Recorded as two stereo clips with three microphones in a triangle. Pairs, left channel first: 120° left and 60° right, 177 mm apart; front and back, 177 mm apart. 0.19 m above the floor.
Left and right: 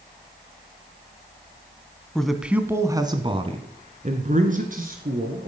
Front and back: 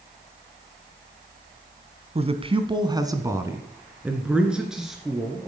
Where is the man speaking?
155° right, 1.3 m; by 5.5 s 90° right, 2.5 m.